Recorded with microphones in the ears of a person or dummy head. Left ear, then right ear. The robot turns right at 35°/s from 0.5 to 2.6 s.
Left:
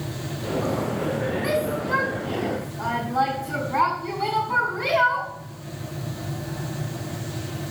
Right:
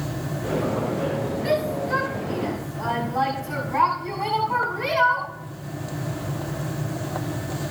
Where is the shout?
50° left (ahead or behind), 7.5 m; by 5.3 s 10° left (ahead or behind), 7.5 m.